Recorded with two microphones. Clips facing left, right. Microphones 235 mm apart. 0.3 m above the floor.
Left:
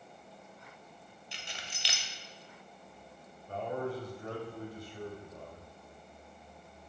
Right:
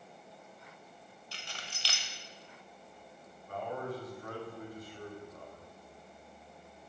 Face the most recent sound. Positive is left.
turn(degrees=30)  # may be behind; listen again after turning